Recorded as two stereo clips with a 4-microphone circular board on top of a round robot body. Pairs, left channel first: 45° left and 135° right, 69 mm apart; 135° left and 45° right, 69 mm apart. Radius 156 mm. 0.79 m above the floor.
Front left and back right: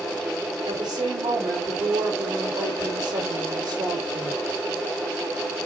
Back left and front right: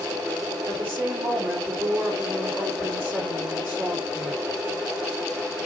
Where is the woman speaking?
105° right, 4 m.